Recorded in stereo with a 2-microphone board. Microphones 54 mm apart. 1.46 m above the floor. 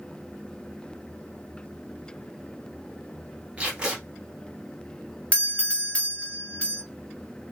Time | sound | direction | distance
3.6 | tape being pulled | 25° right (ahead or behind) | 1.8 m
5.3 | a doorbell | 25° left (ahead or behind) | 0.7 m